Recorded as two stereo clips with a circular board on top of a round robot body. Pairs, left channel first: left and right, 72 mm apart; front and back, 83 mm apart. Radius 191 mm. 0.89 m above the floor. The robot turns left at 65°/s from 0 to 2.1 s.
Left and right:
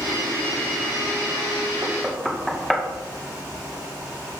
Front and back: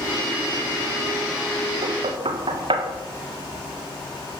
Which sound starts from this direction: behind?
Knocking, at 1.8 s.